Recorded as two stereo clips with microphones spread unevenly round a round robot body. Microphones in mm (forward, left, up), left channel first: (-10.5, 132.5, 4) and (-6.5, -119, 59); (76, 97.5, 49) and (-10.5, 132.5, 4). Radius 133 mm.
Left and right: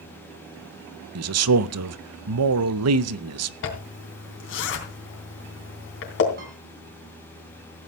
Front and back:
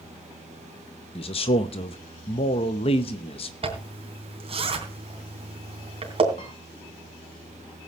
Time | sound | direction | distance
1.1 | a man speaking | 70° right | 0.7 m
3.6 | a zipper | 135° left | 3 m
6.4 | a piano | 35° right | 6.5 m